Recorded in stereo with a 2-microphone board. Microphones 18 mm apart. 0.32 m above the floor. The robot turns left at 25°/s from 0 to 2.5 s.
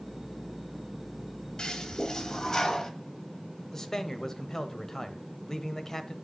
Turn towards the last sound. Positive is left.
turn(degrees=25)  # may be behind; listen again after turning